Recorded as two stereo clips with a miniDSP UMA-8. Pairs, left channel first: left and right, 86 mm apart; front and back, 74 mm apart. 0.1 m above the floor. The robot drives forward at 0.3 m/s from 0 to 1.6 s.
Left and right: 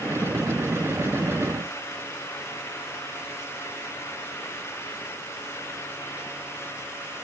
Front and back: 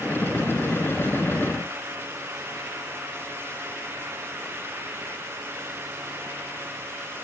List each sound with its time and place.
Only background noise.